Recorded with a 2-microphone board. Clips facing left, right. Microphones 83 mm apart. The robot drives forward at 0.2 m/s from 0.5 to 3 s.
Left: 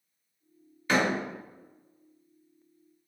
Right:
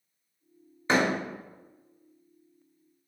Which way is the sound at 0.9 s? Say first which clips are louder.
Right 1 dB; 30° right (ahead or behind).